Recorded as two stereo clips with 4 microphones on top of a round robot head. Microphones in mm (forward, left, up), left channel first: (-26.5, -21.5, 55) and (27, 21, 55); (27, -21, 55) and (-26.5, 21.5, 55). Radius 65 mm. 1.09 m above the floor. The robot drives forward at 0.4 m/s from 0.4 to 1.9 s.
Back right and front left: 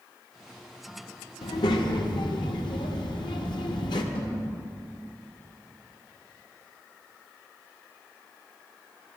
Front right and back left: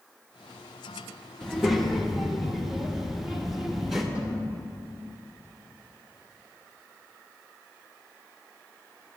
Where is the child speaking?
120° right, 0.9 m; by 4.0 s 130° right, 1.0 m.